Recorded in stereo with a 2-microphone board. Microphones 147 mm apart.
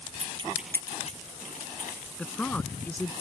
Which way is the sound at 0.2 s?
55° right (ahead or behind).